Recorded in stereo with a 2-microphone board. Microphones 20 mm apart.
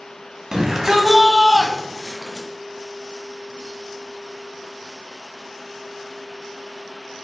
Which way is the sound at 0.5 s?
30° right (ahead or behind).